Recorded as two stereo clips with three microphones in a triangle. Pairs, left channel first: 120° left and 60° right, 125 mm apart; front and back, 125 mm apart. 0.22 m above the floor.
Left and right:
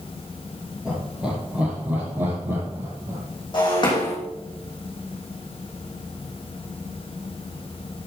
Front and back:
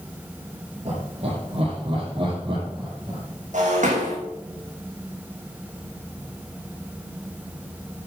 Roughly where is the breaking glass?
Behind.